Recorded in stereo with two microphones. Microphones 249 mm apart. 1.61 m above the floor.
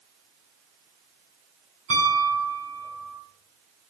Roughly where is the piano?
Right.